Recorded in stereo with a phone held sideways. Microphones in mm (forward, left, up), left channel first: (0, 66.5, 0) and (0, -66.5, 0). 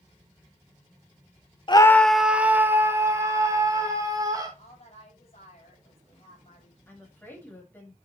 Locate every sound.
1.7 s a scream: 40° left (ahead or behind), 0.6 m; by 4.5 s 25° right (ahead or behind), 4 m
4.6 s a woman speaking: 50° left (ahead or behind), 6.5 m
6.9 s a woman speaking: 15° left (ahead or behind), 6 m